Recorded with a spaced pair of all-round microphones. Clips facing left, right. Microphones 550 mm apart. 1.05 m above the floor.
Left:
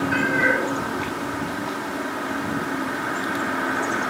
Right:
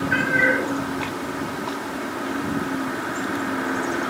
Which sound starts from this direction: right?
A cat meowing, at 0.1 s.